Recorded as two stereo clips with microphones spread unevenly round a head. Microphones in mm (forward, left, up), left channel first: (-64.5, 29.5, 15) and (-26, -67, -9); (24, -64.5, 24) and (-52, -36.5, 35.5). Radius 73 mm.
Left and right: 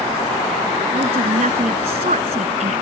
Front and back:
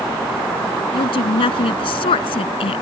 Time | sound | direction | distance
0.9 | a woman speaking | 20° right | ?